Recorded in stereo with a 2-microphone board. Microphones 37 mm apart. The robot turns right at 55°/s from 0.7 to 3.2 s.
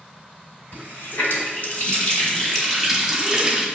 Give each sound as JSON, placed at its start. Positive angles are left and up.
{"t": 0.7, "sound": "a running tap", "azimuth_deg": 65, "distance_m": 1.3}